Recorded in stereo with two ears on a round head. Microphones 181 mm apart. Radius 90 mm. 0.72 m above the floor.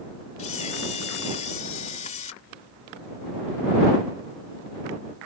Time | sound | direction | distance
0.4 | a camera shutter | 35° left (ahead or behind) | ?